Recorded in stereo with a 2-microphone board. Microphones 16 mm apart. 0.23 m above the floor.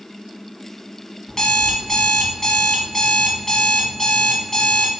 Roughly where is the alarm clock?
Left.